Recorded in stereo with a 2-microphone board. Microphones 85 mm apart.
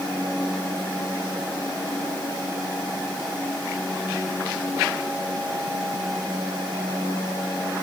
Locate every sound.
Only background noise.